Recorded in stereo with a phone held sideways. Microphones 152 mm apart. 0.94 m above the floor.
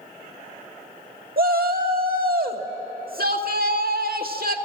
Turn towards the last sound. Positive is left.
turn(degrees=-75)  # may be behind; listen again after turning